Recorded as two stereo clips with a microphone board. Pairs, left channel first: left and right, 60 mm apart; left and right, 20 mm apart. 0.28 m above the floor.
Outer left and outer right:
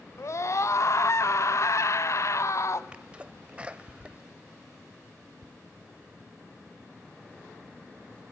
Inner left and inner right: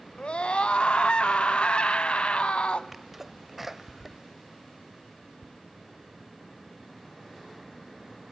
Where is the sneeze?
20° right (ahead or behind), 0.9 m.